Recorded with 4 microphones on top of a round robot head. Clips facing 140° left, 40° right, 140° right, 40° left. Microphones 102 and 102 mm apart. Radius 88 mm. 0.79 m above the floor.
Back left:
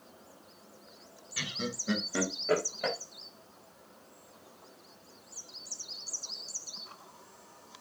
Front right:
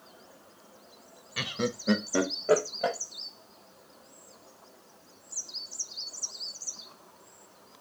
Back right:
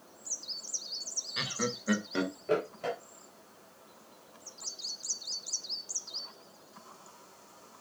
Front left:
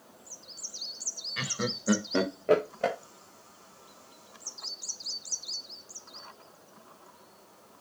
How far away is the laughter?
About 0.8 m.